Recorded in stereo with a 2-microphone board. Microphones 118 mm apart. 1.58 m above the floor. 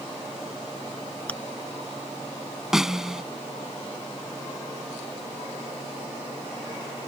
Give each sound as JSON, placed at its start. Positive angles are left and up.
{"t": 1.3, "sound": "chewing", "side_deg": 10}
{"t": 2.7, "sound": "a snare drum", "side_deg": -5}